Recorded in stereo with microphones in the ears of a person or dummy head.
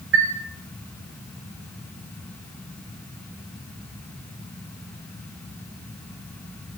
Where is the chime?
75° right (ahead or behind), 4 m.